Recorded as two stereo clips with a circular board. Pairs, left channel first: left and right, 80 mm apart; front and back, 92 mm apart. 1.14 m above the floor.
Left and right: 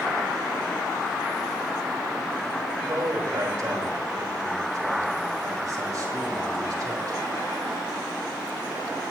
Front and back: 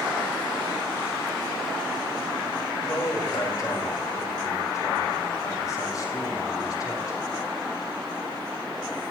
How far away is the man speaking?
About 4.5 m.